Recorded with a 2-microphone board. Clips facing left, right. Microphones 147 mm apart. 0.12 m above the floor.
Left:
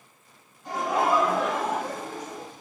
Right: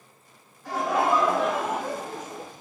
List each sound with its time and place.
0.7 s laughter: 20° left (ahead or behind), 1.3 m; by 2.5 s 30° right (ahead or behind), 1.3 m